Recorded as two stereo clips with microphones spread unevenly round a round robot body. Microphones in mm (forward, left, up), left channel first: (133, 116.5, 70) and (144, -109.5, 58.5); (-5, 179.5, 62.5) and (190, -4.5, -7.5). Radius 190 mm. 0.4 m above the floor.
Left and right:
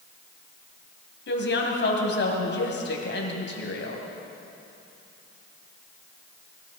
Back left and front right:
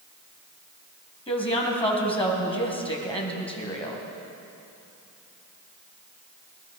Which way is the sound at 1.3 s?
65° left.